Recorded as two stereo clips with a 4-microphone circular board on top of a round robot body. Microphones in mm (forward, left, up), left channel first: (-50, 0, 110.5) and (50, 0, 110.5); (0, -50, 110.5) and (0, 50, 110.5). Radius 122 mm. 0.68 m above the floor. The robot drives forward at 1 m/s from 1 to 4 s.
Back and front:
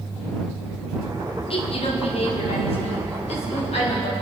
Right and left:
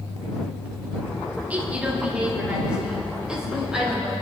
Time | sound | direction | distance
1.5 | a woman speaking | 165° left | 2.0 m